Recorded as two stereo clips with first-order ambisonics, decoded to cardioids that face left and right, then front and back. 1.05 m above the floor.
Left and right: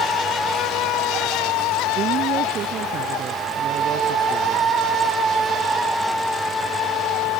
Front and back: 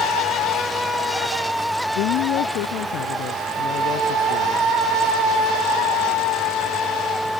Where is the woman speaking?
35° right.